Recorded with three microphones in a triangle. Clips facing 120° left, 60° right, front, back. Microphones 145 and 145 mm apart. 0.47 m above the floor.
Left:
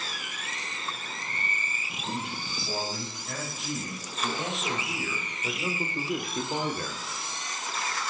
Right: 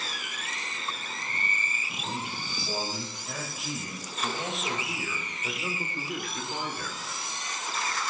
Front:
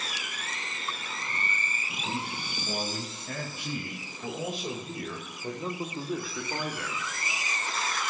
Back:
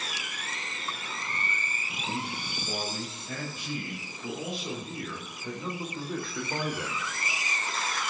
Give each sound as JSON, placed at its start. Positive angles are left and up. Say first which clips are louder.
{"t": 2.0, "sound": "a man speaking", "louder": "left 1 dB, even", "azimuth_deg": 15, "distance_m": 5.5}